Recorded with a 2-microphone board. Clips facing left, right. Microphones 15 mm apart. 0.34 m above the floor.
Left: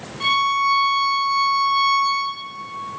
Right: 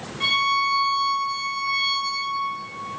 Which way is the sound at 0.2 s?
20° left (ahead or behind).